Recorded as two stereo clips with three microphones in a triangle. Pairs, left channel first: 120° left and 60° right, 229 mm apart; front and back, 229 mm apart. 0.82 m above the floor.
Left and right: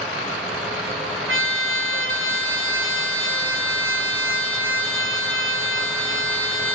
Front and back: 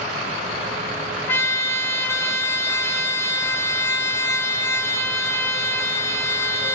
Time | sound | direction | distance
1.3 | a trumpet | 80° right | 1.9 m